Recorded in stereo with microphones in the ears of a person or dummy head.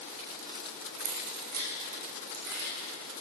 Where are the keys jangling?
45° right (ahead or behind), 1.3 m; by 2.8 s 55° right (ahead or behind), 2 m.